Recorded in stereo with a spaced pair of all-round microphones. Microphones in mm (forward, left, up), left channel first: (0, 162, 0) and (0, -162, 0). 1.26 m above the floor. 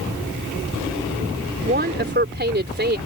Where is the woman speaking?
30° right (ahead or behind).